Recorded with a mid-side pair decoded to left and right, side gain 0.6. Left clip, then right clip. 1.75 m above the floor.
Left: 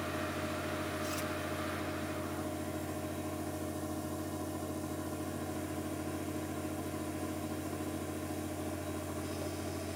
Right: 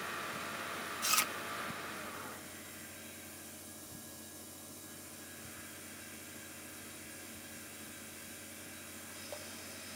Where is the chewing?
60° right.